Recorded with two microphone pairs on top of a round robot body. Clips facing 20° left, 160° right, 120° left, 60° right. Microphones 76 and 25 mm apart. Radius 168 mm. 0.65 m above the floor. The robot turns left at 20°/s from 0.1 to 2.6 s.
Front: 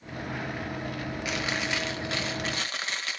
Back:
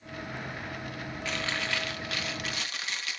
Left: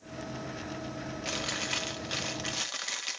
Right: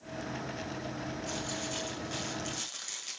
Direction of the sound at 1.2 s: 95° left.